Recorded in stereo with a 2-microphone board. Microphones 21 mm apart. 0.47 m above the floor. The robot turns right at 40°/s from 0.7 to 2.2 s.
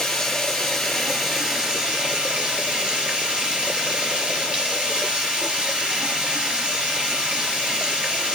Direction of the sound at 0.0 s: 165° left.